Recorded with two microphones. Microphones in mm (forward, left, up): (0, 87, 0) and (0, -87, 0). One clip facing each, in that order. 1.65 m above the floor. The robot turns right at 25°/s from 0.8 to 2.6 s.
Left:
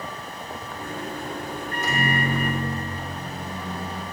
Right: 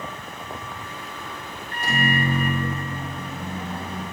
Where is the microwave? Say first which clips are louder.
Right 2 dB; 30° right (ahead or behind), 2.5 m; by 4.0 s 50° right (ahead or behind), 2.5 m.